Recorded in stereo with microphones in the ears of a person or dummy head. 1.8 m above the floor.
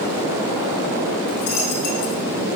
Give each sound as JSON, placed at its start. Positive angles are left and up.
{"t": 1.3, "sound": "a dropped coin", "side_deg": 60, "distance_m": 2.0}